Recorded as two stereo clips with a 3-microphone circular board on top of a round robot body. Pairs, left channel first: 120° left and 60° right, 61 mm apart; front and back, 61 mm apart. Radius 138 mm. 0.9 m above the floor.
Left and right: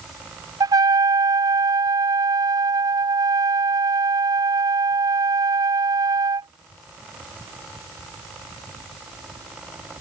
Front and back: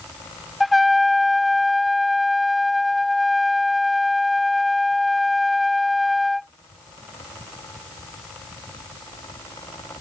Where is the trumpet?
90° right.